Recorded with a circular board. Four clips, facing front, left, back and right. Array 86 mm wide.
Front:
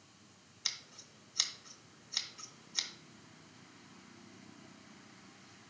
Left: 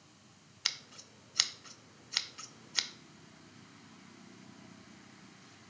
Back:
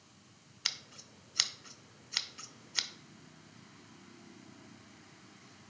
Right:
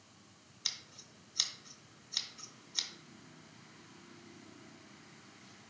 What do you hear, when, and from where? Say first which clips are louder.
0.7 s scissors: left 7 dB, back 4 dB; 130° left, 0.5 m